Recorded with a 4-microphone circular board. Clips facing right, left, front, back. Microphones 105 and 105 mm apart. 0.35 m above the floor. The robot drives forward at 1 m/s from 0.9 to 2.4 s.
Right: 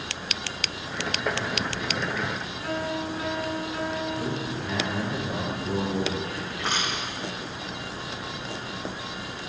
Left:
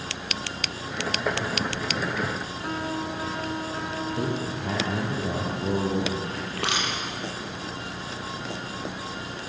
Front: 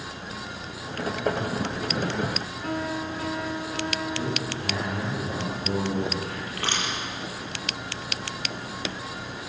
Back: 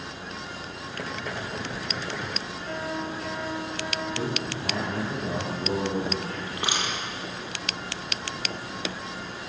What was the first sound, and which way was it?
A piano, 25° left.